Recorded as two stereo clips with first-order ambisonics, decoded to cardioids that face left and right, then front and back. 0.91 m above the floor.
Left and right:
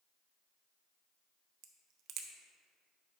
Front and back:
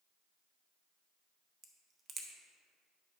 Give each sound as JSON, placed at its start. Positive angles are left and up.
{"t": 1.6, "sound": "a crack", "azimuth_deg": -120, "distance_m": 0.7}